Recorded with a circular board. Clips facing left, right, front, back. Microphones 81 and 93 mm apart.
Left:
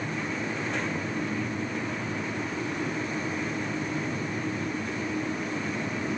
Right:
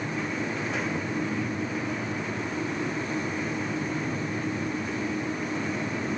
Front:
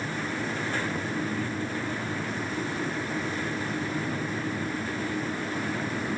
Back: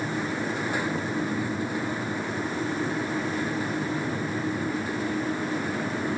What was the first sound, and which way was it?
Only background noise.